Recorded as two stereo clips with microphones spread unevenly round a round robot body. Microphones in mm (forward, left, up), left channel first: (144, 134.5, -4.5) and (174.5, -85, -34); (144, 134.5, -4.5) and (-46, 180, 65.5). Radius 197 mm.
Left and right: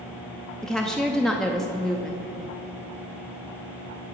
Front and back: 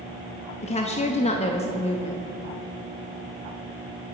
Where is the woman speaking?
5° left, 0.8 m.